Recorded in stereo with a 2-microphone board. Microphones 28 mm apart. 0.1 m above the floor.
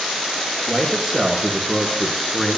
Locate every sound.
0.7 s a man speaking: 15° right (ahead or behind), 1.6 m; by 2.6 s 20° left (ahead or behind), 1.6 m